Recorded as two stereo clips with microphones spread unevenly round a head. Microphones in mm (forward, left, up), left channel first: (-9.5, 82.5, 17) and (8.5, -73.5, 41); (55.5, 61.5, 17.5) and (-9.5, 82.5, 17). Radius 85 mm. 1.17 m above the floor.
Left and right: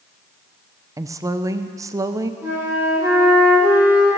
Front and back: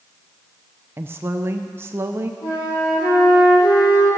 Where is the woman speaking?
155° right, 0.6 m.